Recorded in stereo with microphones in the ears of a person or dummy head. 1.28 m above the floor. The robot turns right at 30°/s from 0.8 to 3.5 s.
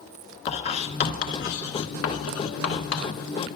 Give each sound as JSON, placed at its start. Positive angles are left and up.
{"t": 0.5, "sound": "writing", "side_deg": 35, "distance_m": 1.2}